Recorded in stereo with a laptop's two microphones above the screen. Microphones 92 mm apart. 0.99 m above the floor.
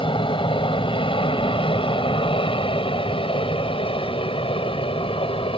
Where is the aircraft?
60° left (ahead or behind); by 5.6 s 70° left (ahead or behind).